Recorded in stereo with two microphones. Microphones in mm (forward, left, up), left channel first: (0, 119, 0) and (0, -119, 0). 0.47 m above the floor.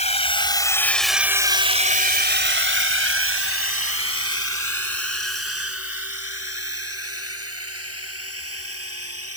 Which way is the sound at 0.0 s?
30° left (ahead or behind).